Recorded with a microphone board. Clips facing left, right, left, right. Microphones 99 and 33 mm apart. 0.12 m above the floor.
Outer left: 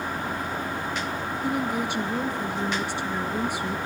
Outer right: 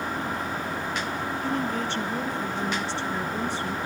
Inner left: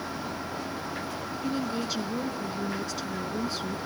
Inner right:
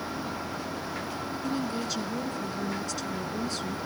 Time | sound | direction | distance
1.4 | a woman speaking | 15° left (ahead or behind) | 1.1 m